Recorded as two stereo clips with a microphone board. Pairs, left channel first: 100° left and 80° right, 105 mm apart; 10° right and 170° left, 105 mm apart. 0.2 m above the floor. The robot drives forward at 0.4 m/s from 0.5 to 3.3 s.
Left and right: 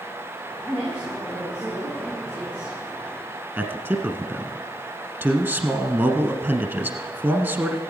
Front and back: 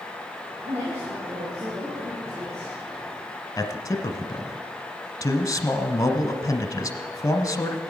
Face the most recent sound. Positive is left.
turn(degrees=-25)